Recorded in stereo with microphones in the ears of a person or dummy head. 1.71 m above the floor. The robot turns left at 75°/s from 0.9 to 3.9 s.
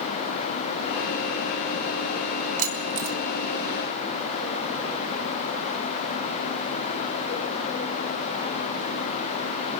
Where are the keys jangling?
40° right (ahead or behind), 5 m; by 3.2 s 80° right, 5 m.